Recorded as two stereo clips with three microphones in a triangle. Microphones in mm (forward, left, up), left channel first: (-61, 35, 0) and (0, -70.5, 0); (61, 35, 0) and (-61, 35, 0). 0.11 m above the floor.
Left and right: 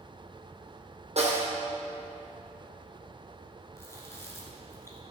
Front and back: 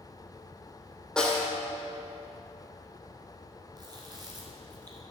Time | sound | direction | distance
1.2 | a snare drum | 85° right | 2 m
3.8 | chewing | 170° left | 1.8 m